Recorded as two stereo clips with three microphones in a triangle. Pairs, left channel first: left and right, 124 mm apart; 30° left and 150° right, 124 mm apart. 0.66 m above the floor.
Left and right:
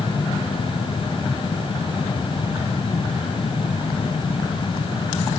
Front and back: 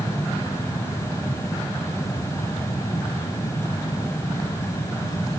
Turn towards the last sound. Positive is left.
No sound to turn to.